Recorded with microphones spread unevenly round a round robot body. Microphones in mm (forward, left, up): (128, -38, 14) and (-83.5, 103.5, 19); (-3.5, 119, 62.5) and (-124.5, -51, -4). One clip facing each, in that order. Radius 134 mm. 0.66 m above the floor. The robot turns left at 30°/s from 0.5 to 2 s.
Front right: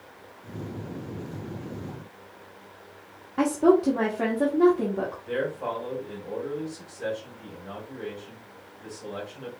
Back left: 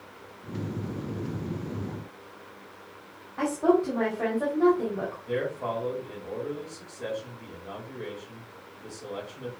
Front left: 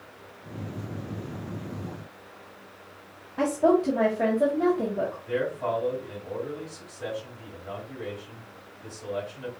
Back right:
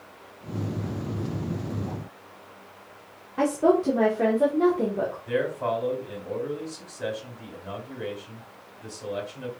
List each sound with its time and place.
3.4 s a woman speaking: 70° right, 1.4 m
5.3 s a man speaking: 110° right, 3 m